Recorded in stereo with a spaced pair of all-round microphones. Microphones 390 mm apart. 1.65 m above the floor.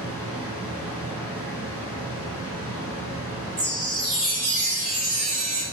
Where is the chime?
55° right (ahead or behind), 0.9 m.